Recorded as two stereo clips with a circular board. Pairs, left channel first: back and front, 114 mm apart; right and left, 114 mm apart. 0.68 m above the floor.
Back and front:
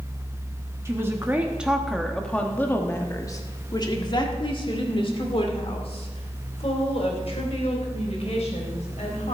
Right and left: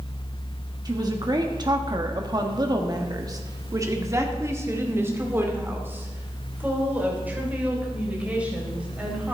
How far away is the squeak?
I don't hear a squeak.